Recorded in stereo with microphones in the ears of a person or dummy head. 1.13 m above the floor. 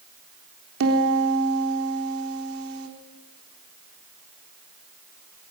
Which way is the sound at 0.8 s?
70° right (ahead or behind).